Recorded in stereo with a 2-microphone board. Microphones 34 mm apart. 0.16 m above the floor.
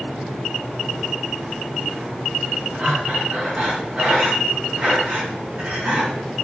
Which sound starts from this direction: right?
Breathing, at 2.8 s.